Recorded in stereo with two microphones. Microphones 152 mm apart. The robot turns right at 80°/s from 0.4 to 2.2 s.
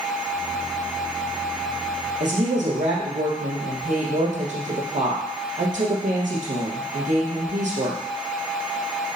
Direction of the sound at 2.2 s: 60° right (ahead or behind).